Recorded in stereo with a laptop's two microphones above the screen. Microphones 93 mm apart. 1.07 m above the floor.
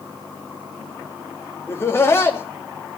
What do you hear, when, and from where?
1.7 s laughter: 30° left (ahead or behind), 2.5 m